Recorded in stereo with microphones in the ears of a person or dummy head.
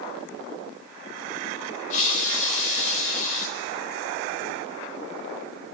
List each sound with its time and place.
1.9 s a hiss: 45° left (ahead or behind), 4 m